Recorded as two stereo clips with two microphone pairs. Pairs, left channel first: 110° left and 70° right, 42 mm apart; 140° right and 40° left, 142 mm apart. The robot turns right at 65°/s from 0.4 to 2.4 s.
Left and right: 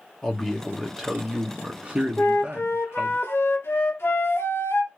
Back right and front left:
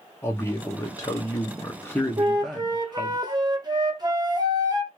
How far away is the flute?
About 0.7 m.